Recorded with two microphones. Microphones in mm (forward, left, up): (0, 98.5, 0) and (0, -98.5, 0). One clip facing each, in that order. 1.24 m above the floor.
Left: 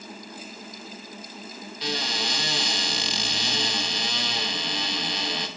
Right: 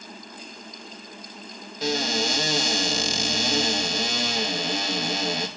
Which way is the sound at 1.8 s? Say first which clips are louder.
Right 6 dB; 40° right (ahead or behind).